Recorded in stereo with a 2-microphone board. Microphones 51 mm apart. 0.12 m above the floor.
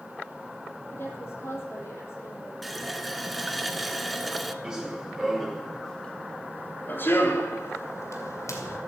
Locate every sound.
0.9 s a woman speaking: 50° left (ahead or behind), 4.5 m; by 2.5 s 60° left (ahead or behind), 4.5 m
2.6 s a running tap: centre (ahead or behind), 0.7 m
4.6 s running footsteps: 15° right (ahead or behind), 3.5 m; by 8.8 s 80° left, 4 m